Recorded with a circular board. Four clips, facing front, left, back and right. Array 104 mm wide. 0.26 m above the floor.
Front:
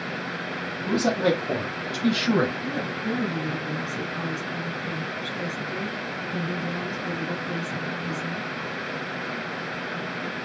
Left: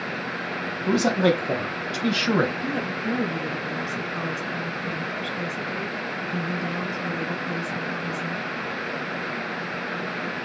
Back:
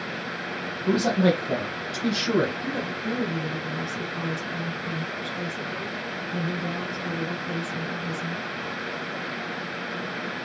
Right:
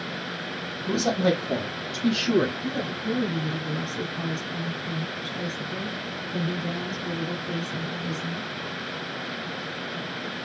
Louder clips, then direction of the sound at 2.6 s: Left 2 dB, front 1 dB; 90° left.